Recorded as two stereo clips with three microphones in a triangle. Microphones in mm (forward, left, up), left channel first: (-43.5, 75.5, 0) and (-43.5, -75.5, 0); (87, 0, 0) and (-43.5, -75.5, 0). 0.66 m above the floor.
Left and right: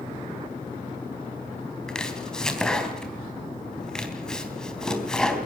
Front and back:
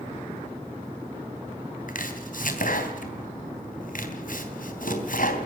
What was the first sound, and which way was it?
Chopping, 5° left.